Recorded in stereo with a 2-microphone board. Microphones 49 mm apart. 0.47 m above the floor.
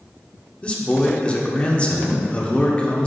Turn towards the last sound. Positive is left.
turn(degrees=25)  # may be behind; listen again after turning